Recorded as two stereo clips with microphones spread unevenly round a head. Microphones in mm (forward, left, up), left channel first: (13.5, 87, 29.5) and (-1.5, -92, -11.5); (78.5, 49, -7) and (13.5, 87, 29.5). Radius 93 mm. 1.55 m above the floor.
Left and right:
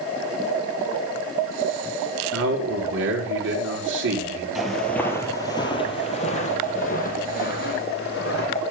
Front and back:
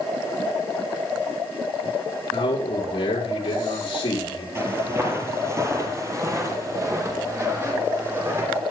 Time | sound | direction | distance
2.3 | a man speaking | 70° right | 5.5 m
4.5 | footsteps | 165° left | 2.5 m